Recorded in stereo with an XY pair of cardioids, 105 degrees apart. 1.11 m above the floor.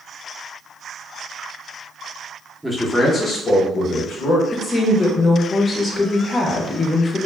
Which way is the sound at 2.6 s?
Straight ahead.